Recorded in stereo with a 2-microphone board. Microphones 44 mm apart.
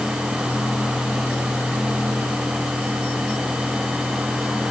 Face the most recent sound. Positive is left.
No sound to turn to.